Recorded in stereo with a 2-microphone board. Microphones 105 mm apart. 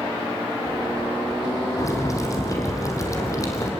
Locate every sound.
1.8 s boiling: 30° left (ahead or behind), 4 m